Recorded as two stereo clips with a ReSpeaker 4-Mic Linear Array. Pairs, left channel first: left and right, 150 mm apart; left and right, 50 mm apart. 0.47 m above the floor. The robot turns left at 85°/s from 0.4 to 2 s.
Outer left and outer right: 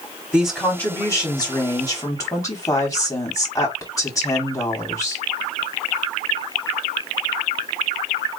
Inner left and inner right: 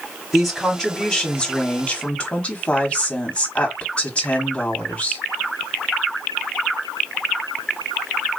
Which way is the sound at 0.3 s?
5° right (ahead or behind).